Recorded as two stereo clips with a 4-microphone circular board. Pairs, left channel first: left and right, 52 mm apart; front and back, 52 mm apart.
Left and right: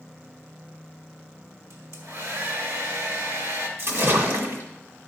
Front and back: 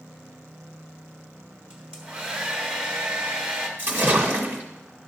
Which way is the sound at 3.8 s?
120° right.